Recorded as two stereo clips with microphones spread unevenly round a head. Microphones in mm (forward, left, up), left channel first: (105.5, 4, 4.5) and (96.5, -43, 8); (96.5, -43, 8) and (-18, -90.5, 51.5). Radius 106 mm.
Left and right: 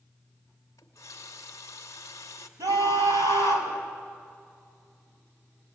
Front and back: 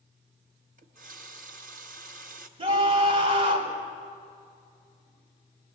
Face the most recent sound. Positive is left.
turn(degrees=-115)